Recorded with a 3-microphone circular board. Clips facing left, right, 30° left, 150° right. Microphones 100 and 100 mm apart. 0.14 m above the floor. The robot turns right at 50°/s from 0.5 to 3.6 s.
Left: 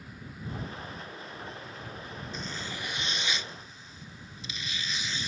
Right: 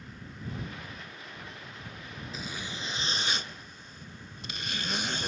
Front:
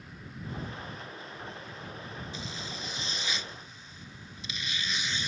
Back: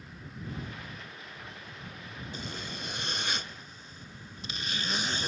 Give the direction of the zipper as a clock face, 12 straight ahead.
6 o'clock.